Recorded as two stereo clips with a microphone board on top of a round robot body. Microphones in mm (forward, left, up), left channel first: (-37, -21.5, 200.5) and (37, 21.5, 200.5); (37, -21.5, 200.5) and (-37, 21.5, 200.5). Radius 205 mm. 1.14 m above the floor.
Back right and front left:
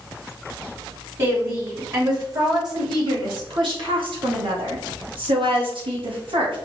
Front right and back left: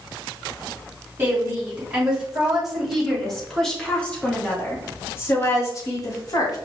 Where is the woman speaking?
80° left, 3 m; by 6.6 s 15° left, 2.5 m.